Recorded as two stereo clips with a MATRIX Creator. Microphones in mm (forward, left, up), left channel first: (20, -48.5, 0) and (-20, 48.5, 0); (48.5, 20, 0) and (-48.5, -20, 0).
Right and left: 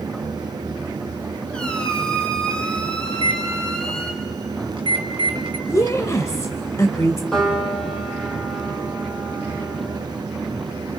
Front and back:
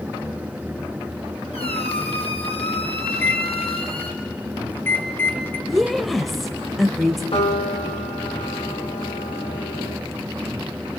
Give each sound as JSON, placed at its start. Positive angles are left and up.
{"t": 1.5, "sound": "a squeak", "azimuth_deg": 15, "distance_m": 2.5}
{"t": 3.1, "sound": "a microwave", "azimuth_deg": 85, "distance_m": 2.0}
{"t": 5.7, "sound": "a woman speaking", "azimuth_deg": -65, "distance_m": 1.1}
{"t": 7.3, "sound": "a piano", "azimuth_deg": 15, "distance_m": 4.5}